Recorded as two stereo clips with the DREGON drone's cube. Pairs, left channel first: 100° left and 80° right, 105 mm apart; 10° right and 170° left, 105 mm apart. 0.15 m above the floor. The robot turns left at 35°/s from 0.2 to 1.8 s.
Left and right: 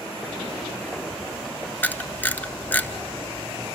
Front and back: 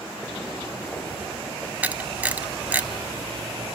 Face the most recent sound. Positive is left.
turn(degrees=130)